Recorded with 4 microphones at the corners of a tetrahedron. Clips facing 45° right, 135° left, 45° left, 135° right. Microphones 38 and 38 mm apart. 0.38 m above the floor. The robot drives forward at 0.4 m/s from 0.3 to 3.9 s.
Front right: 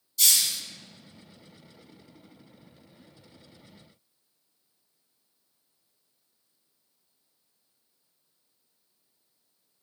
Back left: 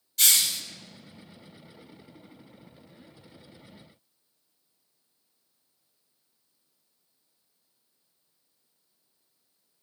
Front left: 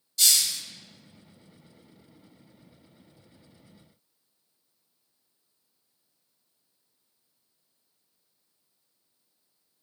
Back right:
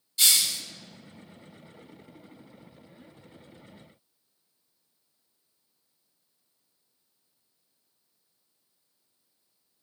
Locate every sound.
0.2 s a hiss: 160° left, 1.1 m